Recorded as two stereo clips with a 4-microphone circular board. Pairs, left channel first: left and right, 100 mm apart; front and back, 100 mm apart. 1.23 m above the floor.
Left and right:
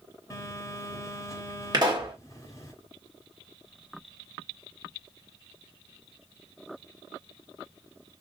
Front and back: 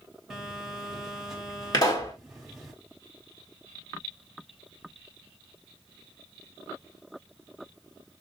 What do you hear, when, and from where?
0.3 s a phone buzzing: 95° left, 1.2 m
1.7 s a pop: 45° right, 1.8 m